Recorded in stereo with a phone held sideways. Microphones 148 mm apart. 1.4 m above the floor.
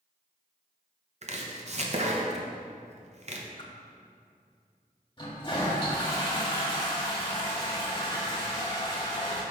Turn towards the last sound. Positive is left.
turn(degrees=30)  # may be behind; listen again after turning